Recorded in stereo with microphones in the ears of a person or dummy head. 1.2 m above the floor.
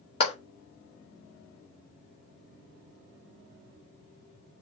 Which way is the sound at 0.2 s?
30° left (ahead or behind).